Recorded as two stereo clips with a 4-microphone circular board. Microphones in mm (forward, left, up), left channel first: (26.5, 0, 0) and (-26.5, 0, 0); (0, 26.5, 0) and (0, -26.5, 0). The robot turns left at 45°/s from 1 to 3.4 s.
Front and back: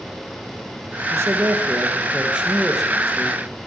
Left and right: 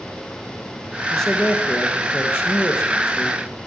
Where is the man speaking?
170° left, 2.5 m; by 3.4 s 70° left, 2.5 m.